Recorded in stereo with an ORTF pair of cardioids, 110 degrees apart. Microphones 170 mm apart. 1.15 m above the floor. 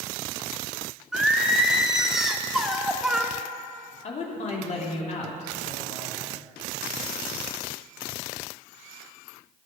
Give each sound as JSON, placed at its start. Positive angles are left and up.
{"t": 1.1, "sound": "singing", "azimuth_deg": 0, "distance_m": 1.3}
{"t": 4.0, "sound": "a man speaking", "azimuth_deg": 45, "distance_m": 3.0}